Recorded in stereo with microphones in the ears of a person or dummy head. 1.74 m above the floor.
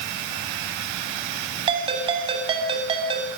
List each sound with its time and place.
1.7 s a ringtone: 25° right (ahead or behind), 7.5 m